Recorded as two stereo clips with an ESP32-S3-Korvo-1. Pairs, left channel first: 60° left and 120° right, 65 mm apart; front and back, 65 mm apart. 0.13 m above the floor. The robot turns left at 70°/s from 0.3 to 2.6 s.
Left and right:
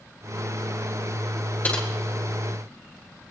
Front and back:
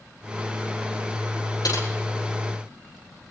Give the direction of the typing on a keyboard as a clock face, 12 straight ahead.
12 o'clock.